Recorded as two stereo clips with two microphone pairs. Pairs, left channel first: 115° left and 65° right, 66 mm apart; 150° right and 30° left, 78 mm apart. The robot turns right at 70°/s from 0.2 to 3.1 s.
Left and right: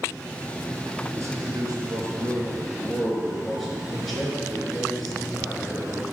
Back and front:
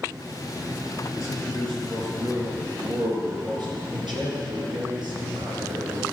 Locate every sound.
1.1 s a man speaking: 110° right, 3 m; by 6.0 s 30° left, 3 m